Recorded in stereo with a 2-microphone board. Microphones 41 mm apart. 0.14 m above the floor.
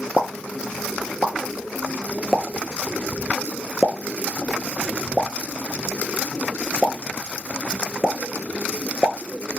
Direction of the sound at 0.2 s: 10° right (ahead or behind).